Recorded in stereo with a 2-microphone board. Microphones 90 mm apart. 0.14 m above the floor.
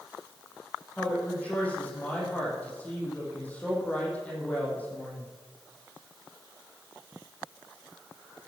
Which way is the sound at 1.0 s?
15° left (ahead or behind).